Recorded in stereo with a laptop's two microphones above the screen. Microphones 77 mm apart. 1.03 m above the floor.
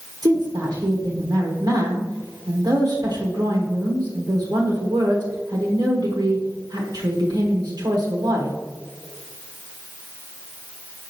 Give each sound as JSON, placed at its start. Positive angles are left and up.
{"t": 0.2, "sound": "a woman speaking", "side_deg": -65, "distance_m": 1.5}